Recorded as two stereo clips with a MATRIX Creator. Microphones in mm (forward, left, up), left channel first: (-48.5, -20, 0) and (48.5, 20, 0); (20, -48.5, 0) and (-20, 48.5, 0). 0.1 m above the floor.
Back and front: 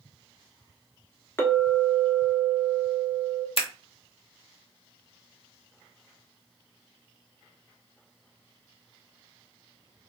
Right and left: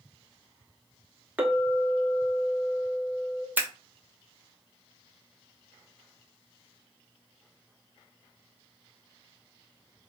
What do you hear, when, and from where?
1.4 s a clink: 170° left, 0.7 m
3.6 s scissors: 175° right, 0.7 m